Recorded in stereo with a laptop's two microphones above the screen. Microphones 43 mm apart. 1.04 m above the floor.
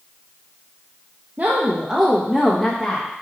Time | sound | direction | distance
1.4 | a woman speaking | 40° right (ahead or behind) | 0.6 m